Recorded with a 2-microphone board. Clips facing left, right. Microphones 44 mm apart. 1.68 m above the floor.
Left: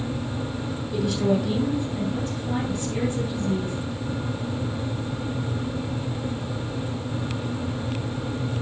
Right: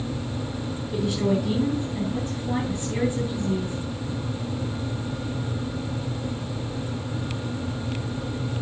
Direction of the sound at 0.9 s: 20° right (ahead or behind).